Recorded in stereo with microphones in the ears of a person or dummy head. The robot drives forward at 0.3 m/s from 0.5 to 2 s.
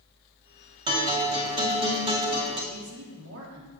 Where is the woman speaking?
70° right (ahead or behind), 2 m.